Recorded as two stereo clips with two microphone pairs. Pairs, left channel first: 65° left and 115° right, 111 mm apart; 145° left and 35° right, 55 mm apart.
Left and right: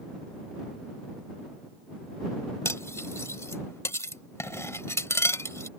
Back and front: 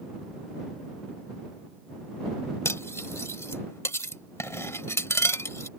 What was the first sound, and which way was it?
Cutlery clinking, 125° left.